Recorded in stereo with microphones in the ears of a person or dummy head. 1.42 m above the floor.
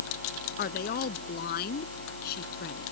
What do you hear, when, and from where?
0.6 s a woman speaking: 55° left (ahead or behind); by 2.9 s 65° left (ahead or behind)